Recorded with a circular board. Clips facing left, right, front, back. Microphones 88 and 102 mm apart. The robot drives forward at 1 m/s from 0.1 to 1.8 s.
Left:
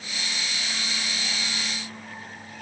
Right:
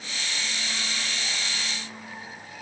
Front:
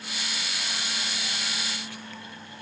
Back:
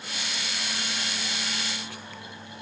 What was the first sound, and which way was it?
Only background noise.